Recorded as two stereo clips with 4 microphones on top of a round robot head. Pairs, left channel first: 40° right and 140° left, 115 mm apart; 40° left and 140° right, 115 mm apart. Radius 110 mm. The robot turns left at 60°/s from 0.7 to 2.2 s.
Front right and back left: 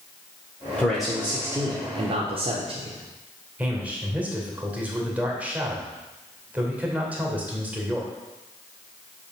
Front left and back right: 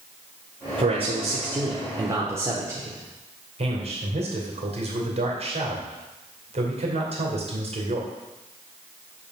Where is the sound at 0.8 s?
115° right, 1.3 m; by 3.0 s 160° left, 1.3 m.